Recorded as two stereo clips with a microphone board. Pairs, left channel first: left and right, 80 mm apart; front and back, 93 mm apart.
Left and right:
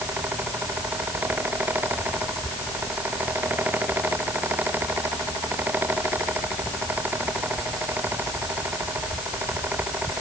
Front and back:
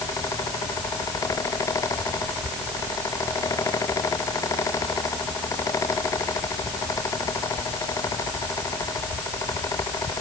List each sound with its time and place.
Only background noise.